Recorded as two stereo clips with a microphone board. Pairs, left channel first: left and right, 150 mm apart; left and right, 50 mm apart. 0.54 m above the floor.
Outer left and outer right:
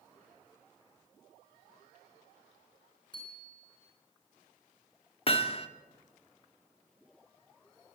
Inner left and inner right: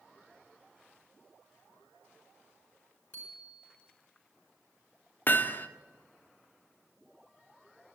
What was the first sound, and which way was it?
A bicycle bell, 30° left (ahead or behind).